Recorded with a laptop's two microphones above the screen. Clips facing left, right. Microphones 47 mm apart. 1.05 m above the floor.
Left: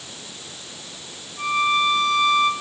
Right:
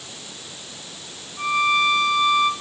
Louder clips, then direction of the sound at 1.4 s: Right 1 dB; 5° right (ahead or behind).